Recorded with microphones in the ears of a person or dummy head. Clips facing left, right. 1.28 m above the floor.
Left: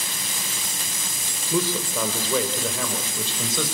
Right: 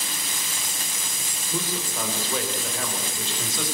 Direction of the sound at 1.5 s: 60° left (ahead or behind).